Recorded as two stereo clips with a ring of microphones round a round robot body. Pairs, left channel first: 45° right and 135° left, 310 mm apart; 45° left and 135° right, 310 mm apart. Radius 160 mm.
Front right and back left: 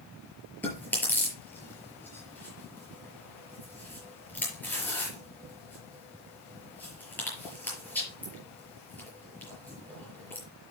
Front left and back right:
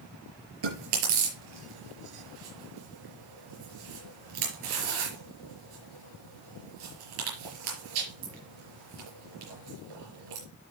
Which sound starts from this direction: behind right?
Chewing, at 0.6 s.